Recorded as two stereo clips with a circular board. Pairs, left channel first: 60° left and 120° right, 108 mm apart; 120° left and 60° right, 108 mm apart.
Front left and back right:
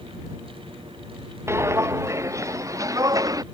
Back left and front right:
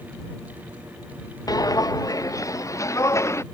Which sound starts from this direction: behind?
Footsteps, at 1.5 s.